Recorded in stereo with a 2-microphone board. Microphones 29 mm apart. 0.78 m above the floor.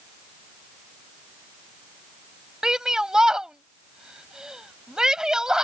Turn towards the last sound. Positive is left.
turn(degrees=-25)  # may be behind; listen again after turning